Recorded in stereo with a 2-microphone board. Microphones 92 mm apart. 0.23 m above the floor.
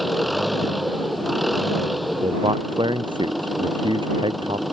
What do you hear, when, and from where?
0.0 s an engine running: centre (ahead or behind)
2.2 s a man speaking: 65° right (ahead or behind)